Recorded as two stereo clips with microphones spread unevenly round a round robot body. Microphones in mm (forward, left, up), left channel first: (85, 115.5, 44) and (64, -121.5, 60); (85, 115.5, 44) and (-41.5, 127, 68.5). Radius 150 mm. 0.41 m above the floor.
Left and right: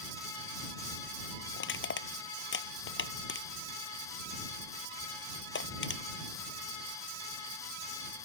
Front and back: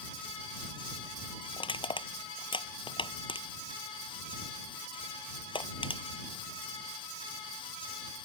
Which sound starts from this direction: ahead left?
Crushing, at 1.6 s.